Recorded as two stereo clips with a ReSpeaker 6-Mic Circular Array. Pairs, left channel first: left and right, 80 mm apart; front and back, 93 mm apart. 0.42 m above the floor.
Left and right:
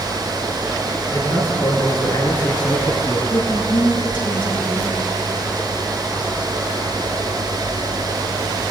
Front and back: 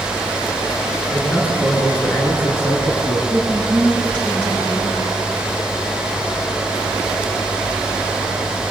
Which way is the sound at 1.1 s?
75° left.